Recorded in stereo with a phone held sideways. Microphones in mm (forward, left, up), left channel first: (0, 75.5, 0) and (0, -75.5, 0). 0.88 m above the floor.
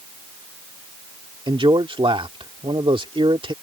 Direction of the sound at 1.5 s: 35° right (ahead or behind).